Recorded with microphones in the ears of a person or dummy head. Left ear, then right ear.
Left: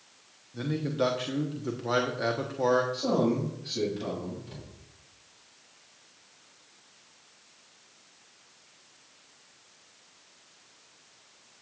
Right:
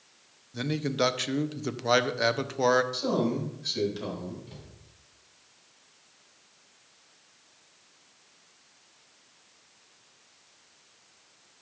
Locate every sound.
0.5 s a man speaking: 65° right (ahead or behind), 0.7 m
2.9 s a man speaking: 90° right, 5 m
4.5 s a cupboard door: centre (ahead or behind), 2.5 m